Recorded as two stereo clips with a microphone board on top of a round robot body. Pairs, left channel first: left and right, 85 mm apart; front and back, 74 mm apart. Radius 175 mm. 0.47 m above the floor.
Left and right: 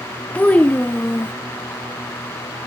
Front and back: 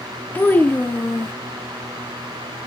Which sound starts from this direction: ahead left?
A child speaking, at 0.3 s.